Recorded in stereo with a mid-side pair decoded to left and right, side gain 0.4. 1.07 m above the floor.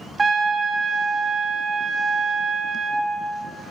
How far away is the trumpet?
About 0.8 m.